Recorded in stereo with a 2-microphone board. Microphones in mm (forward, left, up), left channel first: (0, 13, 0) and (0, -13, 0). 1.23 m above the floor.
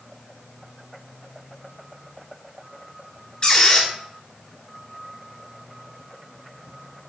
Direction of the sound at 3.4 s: 35° left (ahead or behind).